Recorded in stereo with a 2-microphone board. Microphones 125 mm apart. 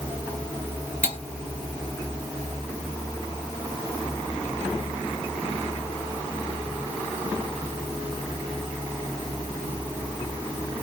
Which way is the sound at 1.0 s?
65° left (ahead or behind).